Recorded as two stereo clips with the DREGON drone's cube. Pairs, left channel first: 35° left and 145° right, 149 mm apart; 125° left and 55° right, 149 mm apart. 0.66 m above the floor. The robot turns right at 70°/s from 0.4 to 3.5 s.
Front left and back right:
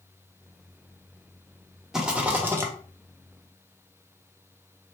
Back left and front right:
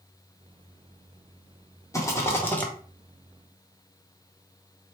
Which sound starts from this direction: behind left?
A rattle, at 1.9 s.